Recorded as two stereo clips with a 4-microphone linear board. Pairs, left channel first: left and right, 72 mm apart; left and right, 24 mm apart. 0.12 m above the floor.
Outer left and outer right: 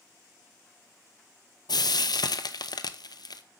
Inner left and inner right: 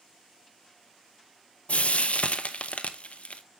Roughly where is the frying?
Left.